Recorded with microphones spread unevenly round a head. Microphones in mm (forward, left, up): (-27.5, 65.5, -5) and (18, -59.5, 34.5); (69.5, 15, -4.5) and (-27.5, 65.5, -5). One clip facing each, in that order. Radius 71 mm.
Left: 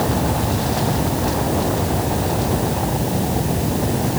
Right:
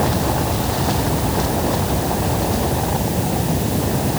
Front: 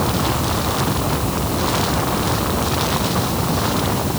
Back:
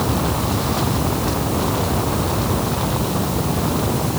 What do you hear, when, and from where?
Only background noise.